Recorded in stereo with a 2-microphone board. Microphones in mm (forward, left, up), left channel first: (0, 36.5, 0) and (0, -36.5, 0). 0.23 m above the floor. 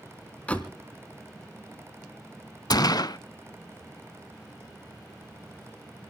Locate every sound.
0.5 s a door slam: 20° left (ahead or behind), 1.5 m
2.7 s a gunshot: 65° left (ahead or behind), 0.5 m